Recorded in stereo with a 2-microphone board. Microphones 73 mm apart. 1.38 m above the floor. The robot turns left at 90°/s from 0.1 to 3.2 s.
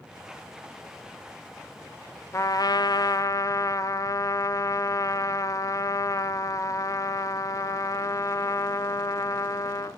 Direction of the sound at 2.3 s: 135° left.